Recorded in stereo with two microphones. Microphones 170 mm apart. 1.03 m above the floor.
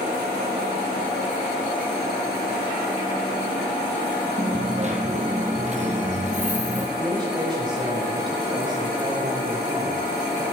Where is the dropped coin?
45° right (ahead or behind), 2 m.